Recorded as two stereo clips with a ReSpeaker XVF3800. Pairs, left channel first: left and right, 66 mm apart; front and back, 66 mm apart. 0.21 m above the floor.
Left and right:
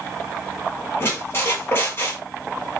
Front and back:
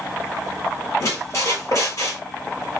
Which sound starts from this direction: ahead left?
A squeak, at 1.0 s.